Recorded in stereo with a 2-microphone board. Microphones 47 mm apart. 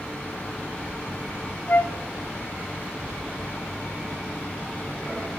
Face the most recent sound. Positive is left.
turn(degrees=45)  # may be behind; listen again after turning